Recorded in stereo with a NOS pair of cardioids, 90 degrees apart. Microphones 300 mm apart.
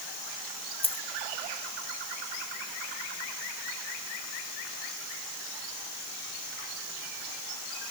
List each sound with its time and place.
0.8 s a dropped coin: 20° left